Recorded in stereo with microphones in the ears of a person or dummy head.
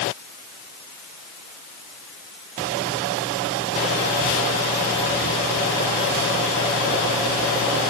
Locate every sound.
Only background noise.